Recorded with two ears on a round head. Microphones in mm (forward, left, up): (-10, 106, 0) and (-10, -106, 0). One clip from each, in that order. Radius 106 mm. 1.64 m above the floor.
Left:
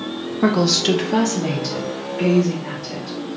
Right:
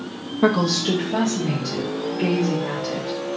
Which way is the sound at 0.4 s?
Centre (ahead or behind).